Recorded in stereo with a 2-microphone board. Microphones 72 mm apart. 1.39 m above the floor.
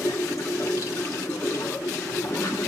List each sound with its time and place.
0.0 s running water: 50° left (ahead or behind), 1.2 m